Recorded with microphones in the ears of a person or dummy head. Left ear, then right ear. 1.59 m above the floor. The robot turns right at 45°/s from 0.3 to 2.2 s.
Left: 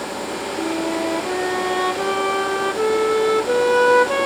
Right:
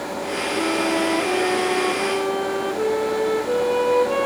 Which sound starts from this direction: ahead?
A flute, at 0.6 s.